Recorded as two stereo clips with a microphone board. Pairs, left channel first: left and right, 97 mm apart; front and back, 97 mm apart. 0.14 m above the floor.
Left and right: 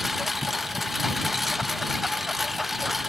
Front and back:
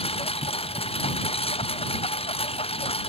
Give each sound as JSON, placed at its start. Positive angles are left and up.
{"t": 0.0, "sound": "a lawn mower", "azimuth_deg": 0}